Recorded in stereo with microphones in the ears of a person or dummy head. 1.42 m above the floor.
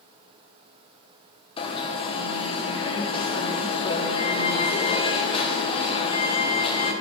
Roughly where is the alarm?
Left.